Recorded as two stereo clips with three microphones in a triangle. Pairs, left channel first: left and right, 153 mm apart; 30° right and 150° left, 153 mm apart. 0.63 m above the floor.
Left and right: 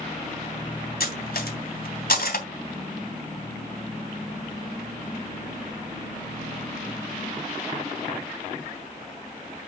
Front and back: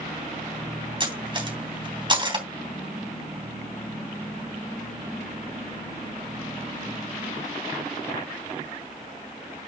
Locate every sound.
1.0 s cutlery clinking: 95° left, 3 m